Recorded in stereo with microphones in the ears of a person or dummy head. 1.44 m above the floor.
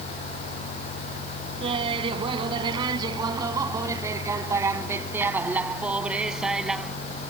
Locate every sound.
1.6 s laughter: 30° right (ahead or behind); by 7.0 s centre (ahead or behind)